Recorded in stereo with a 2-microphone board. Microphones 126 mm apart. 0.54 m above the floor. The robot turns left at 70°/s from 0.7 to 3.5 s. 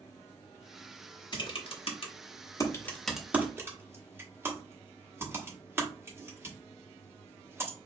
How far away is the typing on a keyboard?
About 1.0 m.